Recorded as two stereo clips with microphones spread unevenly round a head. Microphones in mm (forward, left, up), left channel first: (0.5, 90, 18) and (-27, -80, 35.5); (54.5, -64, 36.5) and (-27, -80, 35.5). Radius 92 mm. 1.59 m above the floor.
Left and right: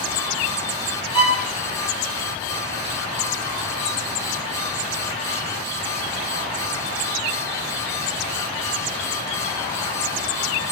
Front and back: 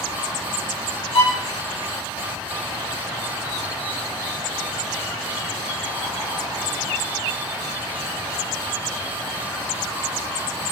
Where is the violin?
15° left, 8 m.